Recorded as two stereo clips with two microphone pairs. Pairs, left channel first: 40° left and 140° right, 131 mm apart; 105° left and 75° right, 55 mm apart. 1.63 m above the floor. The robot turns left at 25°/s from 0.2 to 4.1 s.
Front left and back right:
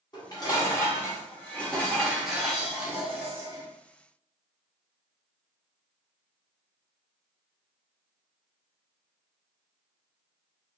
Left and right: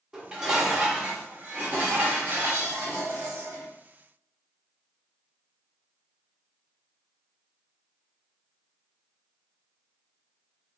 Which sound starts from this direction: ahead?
Dishes clattering, at 0.1 s.